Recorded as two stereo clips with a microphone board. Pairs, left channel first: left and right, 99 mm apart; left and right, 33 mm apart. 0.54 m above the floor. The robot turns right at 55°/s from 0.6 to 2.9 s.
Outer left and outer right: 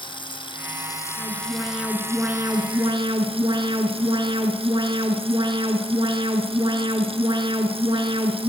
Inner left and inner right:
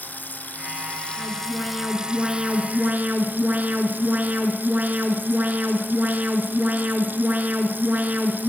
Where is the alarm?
135° left, 4.5 m; by 8.5 s 130° right, 4.5 m.